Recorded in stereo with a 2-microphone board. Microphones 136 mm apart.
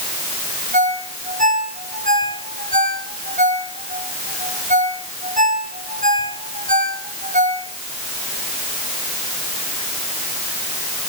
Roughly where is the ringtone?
Right.